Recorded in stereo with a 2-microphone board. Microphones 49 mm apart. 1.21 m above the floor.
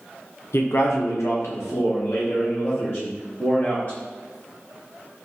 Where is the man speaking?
65° left (ahead or behind), 0.7 m; by 4.0 s 50° left (ahead or behind), 2.0 m.